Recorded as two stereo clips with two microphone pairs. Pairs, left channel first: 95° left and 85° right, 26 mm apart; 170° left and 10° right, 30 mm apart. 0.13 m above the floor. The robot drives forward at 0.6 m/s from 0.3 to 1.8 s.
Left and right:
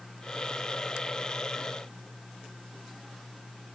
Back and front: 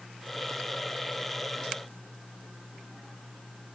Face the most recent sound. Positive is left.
No sound to turn to.